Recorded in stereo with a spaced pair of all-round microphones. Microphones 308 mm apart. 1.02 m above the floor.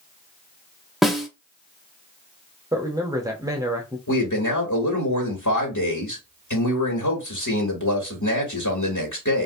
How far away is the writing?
I don't hear writing.